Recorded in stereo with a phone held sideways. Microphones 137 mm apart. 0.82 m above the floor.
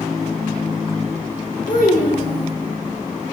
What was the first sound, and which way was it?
A child speaking, 75° left (ahead or behind).